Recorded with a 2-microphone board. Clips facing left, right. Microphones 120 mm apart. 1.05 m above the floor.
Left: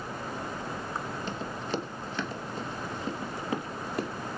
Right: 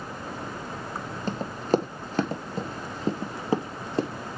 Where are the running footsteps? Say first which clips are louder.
Right 12 dB; 35° right (ahead or behind), 1.4 m; by 4.1 s 25° right (ahead or behind), 1.9 m.